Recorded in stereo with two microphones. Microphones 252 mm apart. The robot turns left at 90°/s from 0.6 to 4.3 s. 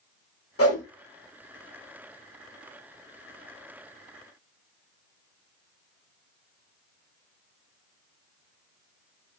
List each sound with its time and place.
0.6 s a whoosh: 60° left (ahead or behind), 0.9 m; by 0.8 s 85° left, 0.9 m